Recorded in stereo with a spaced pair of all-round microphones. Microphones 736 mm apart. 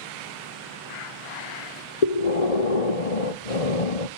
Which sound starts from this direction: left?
Breathing, at 2.0 s.